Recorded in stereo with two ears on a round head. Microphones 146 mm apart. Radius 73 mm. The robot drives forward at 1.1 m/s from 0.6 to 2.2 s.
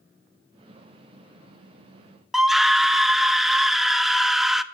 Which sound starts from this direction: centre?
A scream, at 2.3 s.